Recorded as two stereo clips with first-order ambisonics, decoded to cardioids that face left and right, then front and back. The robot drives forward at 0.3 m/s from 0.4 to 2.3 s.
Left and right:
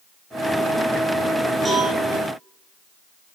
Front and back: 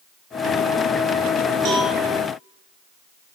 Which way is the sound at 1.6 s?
165° right.